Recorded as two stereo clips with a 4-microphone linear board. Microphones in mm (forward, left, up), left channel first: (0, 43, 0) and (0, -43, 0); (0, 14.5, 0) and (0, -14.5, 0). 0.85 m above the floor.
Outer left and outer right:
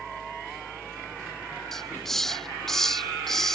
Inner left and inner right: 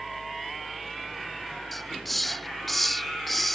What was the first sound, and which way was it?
A hiss, 5° left (ahead or behind).